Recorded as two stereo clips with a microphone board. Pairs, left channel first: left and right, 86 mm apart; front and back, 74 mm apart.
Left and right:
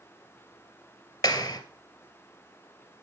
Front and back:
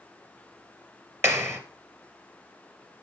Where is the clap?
125° left, 2.5 m.